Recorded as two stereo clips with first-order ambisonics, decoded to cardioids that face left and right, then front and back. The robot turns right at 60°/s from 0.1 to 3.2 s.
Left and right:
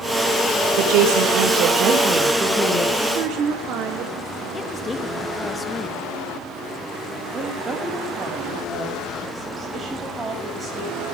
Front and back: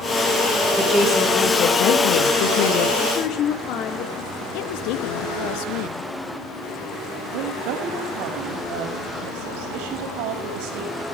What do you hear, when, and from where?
0.8 s a woman speaking: 105° right, 4 m; by 2.9 s 20° left, 4 m
3.0 s a woman speaking: 55° right, 3 m; by 4.4 s 45° right, 3 m
4.5 s a woman speaking: 15° left, 1.5 m
7.3 s a woman speaking: 165° right, 5.5 m